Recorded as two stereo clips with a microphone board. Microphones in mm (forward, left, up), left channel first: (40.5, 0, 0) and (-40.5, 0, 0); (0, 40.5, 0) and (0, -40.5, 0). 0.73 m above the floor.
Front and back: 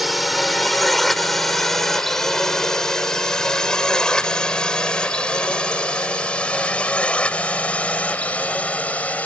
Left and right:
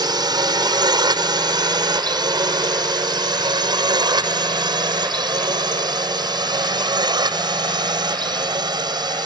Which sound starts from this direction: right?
A drone, at 0.0 s.